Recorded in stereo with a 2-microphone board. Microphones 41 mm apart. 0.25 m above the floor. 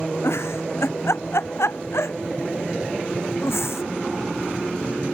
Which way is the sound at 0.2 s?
85° left.